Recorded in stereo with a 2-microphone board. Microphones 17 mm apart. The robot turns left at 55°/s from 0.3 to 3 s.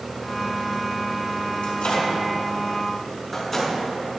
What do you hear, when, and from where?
1.6 s a microwave: 85° left, 5.5 m; by 3.8 s 15° left (ahead or behind), 5.5 m